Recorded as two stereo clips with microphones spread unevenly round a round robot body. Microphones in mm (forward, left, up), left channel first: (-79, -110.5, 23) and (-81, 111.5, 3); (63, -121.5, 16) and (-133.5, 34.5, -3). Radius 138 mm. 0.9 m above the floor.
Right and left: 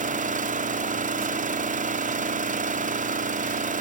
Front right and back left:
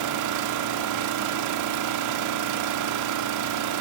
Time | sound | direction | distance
0.0 | an engine running | 150° left | 1.7 m